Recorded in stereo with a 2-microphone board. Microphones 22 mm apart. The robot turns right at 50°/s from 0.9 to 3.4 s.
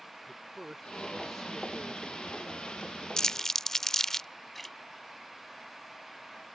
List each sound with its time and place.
0.3 s a man speaking: 15° right; by 3.1 s 90° left
3.2 s crumpling: 35° left (ahead or behind); by 4.3 s 25° left (ahead or behind)
4.5 s a splash: 10° left (ahead or behind)